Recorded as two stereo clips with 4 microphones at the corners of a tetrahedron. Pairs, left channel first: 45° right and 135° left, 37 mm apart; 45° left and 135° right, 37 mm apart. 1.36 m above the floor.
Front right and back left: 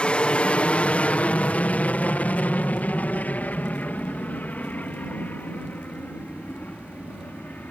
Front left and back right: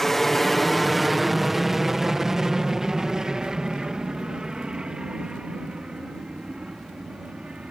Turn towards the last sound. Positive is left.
turn(degrees=-80)